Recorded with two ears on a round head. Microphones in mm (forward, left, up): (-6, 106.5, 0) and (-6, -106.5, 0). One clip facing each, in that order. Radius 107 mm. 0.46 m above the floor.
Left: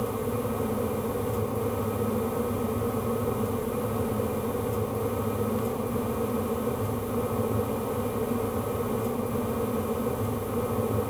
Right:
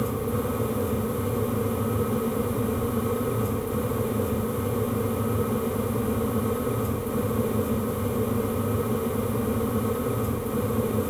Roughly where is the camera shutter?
No camera shutter in this recording.